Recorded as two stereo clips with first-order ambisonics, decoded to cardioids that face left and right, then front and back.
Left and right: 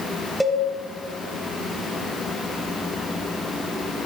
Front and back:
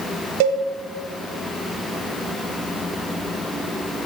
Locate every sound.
0.4 s a cowbell: 175° right, 1.5 m